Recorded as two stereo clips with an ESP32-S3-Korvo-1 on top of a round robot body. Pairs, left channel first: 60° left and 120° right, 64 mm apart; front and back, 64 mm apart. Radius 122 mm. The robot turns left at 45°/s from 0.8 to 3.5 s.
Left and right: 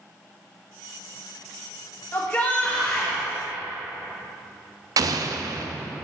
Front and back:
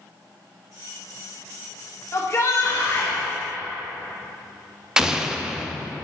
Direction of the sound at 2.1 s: 20° left.